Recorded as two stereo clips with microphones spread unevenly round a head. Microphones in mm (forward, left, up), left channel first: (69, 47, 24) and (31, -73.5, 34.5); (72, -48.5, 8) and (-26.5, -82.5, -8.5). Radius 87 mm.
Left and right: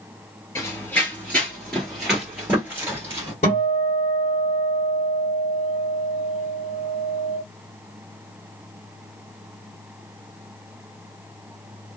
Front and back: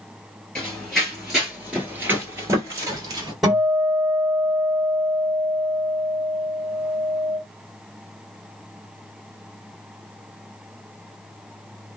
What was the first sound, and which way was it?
Running footsteps, 30° left.